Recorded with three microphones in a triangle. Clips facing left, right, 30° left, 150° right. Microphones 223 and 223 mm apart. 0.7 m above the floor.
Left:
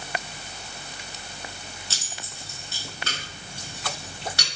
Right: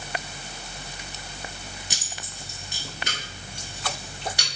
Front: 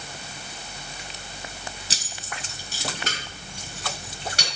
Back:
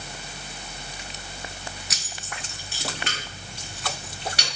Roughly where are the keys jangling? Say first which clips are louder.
Right 1 dB, front 1 dB; ahead.